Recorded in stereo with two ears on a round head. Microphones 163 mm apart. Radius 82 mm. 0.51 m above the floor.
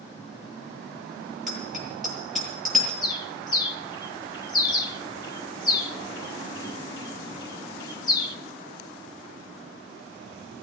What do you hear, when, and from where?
1.5 s a bicycle bell: centre (ahead or behind), 9 m
3.0 s a bird: 25° left (ahead or behind), 0.9 m